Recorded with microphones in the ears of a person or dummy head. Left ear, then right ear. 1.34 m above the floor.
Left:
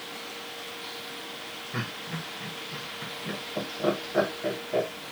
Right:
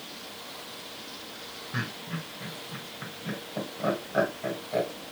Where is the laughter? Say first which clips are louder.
Right 1 dB; centre (ahead or behind), 1.8 m.